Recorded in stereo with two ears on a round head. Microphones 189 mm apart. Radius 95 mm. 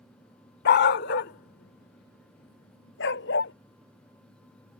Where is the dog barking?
50° left (ahead or behind); by 3.5 s 60° left (ahead or behind).